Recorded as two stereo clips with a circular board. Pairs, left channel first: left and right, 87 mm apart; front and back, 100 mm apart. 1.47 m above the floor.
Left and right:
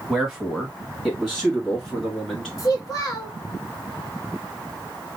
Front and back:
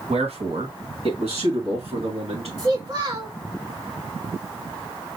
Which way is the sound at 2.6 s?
135° left.